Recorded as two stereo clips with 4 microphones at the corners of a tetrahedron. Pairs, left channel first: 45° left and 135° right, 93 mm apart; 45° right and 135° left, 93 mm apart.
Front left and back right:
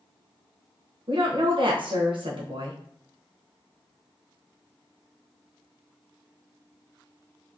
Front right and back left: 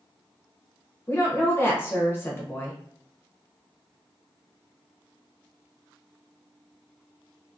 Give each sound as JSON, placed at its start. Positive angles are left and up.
{"t": 1.1, "sound": "a woman speaking", "azimuth_deg": -110, "distance_m": 0.8}